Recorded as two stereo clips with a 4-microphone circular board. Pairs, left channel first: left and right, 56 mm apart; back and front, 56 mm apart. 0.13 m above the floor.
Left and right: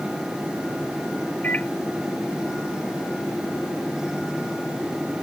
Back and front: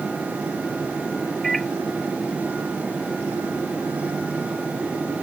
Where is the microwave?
95° left.